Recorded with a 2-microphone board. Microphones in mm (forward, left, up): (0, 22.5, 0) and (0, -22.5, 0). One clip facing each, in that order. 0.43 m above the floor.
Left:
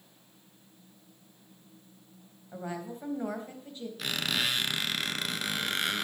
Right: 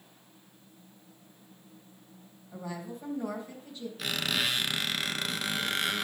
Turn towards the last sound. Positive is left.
turn(degrees=0)  # may be behind; listen again after turning